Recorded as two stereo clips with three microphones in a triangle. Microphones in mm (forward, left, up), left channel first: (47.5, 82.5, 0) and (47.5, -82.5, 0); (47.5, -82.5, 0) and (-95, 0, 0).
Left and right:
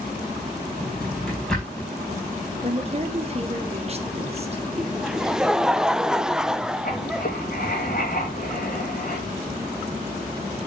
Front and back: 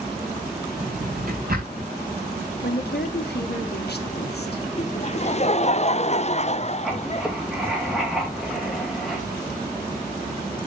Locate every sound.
0.8 s a drawer: 175° left, 4.5 m
2.6 s a woman speaking: 40° right, 1.6 m
4.8 s laughter: 5° right, 0.6 m
6.8 s writing: 60° left, 3 m